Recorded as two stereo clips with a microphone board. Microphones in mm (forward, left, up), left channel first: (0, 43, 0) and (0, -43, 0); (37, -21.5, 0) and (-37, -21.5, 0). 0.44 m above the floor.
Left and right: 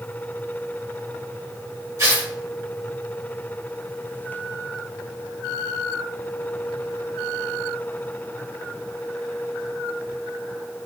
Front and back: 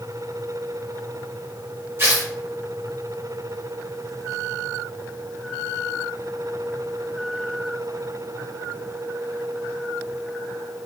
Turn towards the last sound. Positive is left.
turn(degrees=-135)